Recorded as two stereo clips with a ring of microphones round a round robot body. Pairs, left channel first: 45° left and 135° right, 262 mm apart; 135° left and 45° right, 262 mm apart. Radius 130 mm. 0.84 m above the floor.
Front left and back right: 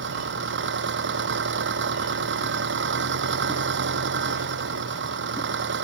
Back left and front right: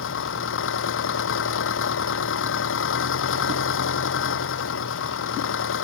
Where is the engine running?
Straight behind.